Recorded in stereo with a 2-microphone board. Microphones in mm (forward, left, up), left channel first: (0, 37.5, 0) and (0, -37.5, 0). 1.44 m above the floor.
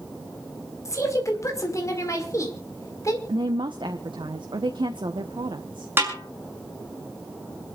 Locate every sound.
0.8 s a woman speaking: 40° left (ahead or behind), 4.5 m
3.3 s a woman speaking: 85° right, 1.1 m
6.0 s a snare drum: 30° right (ahead or behind), 5.5 m